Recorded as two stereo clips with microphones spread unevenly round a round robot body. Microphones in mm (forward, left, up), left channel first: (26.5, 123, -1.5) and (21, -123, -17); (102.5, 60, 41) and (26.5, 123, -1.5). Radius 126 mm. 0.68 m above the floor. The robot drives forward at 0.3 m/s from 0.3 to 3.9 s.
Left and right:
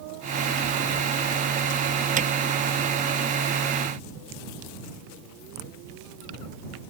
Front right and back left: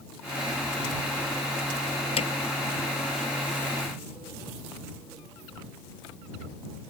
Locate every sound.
2.2 s hammering: 35° right